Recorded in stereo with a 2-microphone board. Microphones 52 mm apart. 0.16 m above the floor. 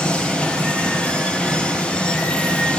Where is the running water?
20° left (ahead or behind), 3.5 m.